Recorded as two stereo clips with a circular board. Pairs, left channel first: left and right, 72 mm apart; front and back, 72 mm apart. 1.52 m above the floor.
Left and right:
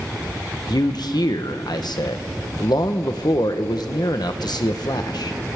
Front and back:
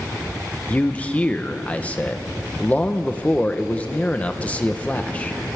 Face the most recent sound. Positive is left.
turn(degrees=70)